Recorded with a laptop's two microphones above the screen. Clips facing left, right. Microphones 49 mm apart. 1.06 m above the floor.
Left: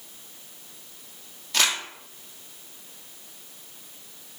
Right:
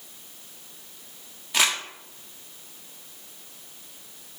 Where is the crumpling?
15° right (ahead or behind), 1.0 m.